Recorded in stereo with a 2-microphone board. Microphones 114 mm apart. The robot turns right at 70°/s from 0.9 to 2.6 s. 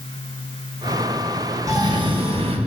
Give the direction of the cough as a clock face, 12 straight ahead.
5 o'clock.